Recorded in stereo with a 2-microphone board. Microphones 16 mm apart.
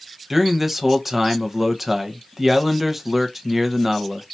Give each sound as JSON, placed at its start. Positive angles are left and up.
{"t": 0.3, "sound": "a man speaking", "side_deg": -10, "distance_m": 1.1}